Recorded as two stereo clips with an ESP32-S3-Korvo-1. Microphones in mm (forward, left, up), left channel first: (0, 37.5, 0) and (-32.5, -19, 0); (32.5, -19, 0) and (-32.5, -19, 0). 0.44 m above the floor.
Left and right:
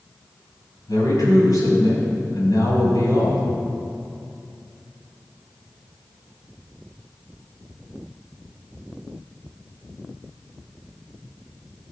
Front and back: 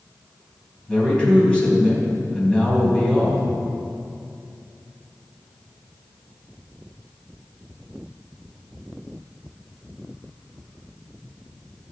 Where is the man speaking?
75° left, 4 m.